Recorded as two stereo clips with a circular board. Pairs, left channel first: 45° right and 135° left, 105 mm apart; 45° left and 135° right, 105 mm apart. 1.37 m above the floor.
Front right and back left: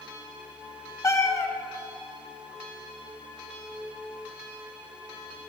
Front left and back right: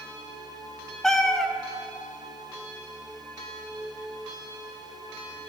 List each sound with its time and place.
1.0 s a cat meowing: 35° right, 0.6 m